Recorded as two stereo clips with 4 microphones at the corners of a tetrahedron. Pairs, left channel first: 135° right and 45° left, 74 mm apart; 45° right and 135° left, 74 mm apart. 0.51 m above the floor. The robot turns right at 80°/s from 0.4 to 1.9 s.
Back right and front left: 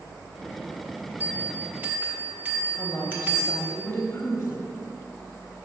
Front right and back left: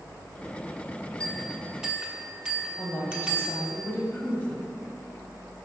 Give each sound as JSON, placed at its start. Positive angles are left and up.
{"t": 1.2, "sound": "a bell", "azimuth_deg": 15, "distance_m": 0.9}
{"t": 2.8, "sound": "a woman speaking", "azimuth_deg": -85, "distance_m": 0.8}